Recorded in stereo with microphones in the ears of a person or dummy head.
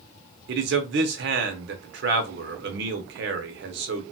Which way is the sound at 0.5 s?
60° right (ahead or behind).